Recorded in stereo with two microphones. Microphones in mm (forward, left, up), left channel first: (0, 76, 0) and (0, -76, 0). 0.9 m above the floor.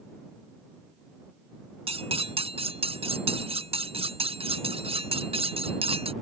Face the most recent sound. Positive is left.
turn(degrees=-40)  # may be behind; listen again after turning